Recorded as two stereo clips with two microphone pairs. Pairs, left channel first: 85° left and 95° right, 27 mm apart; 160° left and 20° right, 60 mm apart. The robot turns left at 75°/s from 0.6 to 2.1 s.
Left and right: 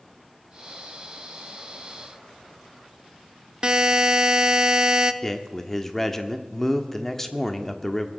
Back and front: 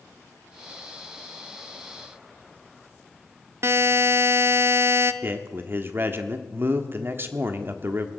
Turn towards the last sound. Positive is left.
turn(degrees=10)